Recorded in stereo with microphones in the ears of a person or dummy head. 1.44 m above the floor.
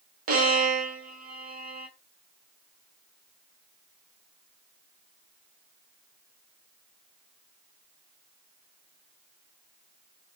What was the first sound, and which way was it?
A violin, 45° right (ahead or behind).